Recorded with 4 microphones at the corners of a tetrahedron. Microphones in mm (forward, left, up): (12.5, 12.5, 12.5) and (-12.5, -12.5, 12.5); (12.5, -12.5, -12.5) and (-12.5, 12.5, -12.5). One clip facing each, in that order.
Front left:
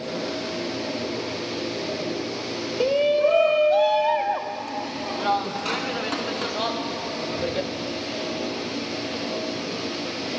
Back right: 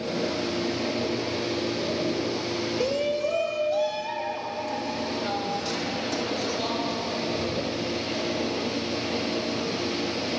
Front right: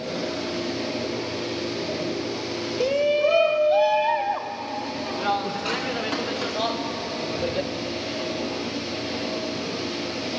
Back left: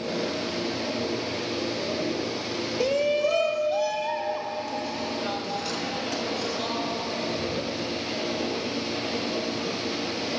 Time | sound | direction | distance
2.8 | a shout | 35° left | 0.8 m